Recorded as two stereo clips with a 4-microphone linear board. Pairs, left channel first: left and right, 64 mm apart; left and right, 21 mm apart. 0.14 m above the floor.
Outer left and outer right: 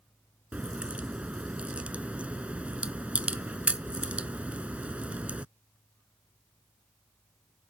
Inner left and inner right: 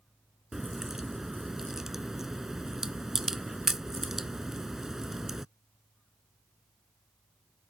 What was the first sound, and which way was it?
A crack, 20° right (ahead or behind).